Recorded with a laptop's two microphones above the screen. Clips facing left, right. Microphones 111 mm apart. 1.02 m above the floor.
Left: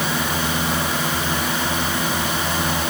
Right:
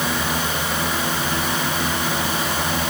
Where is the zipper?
No zipper in this recording.